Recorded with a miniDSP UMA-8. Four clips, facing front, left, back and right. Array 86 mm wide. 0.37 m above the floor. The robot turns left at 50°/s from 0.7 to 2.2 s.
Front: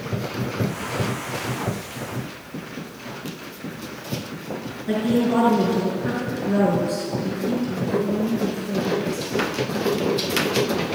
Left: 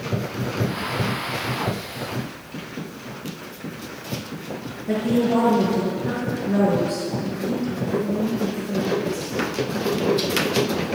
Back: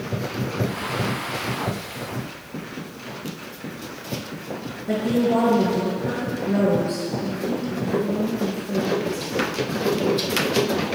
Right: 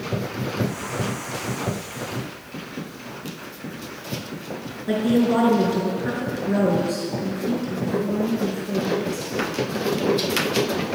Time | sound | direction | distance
4.9 | a woman speaking | 60° right | 5 m